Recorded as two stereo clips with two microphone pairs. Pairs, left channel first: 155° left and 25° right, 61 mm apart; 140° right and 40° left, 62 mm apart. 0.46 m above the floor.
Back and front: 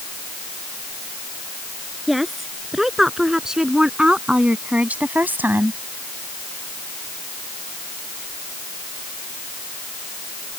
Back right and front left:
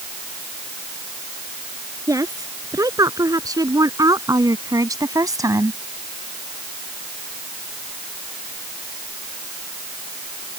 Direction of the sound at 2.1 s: 60° left.